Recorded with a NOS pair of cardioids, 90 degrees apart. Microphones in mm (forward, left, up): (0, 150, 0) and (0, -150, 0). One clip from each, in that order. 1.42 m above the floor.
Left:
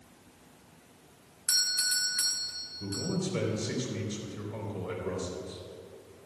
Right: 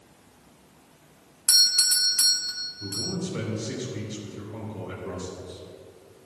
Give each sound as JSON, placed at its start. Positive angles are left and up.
{"t": 1.5, "sound": "a doorbell", "azimuth_deg": -30, "distance_m": 0.8}
{"t": 2.8, "sound": "a man speaking", "azimuth_deg": 25, "distance_m": 4.0}